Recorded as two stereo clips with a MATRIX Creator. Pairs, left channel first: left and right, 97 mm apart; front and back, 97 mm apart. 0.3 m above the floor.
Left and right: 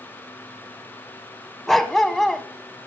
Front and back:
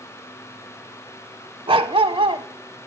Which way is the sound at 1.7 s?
175° left.